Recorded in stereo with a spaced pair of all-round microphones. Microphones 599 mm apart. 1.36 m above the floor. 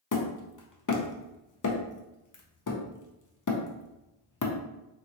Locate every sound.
0.1 s hammering: 35° left (ahead or behind), 0.5 m